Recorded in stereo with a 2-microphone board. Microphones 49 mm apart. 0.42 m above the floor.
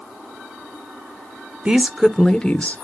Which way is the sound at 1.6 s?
20° right (ahead or behind).